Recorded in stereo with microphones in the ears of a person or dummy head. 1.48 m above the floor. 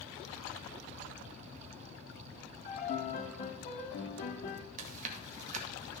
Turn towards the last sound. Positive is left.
turn(degrees=-45)  # may be behind; listen again after turning